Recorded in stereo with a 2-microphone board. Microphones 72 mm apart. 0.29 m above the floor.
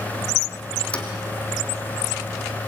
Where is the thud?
15° left (ahead or behind), 2.5 m.